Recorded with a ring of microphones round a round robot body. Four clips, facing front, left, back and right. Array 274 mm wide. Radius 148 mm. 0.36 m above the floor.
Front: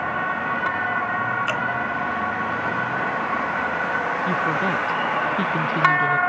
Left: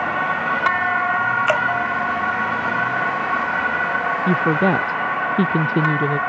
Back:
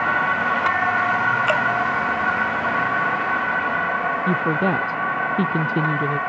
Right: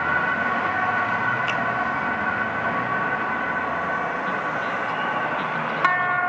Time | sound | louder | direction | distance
1.5 | dripping | left 6 dB, back 5 dB | 115° left | ?
4.3 | a woman speaking | left 8 dB, back 3 dB | 110° left | ?